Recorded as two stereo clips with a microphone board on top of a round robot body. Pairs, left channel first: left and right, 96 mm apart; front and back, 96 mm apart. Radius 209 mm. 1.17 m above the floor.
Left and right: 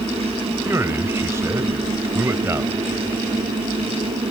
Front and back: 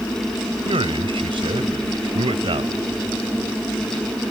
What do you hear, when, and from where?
0.7 s a man speaking: 155° right